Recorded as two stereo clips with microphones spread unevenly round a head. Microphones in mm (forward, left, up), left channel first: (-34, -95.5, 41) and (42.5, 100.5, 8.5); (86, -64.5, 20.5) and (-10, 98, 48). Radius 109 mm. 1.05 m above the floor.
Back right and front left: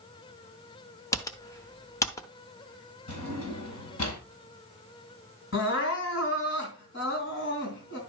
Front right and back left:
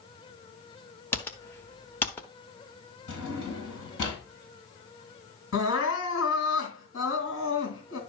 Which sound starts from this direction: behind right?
Typing on a keyboard, at 1.1 s.